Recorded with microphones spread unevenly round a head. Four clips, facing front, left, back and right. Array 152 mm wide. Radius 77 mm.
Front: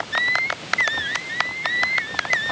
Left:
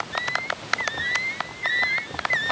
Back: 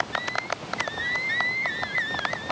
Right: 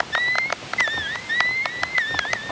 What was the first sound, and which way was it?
Only background noise.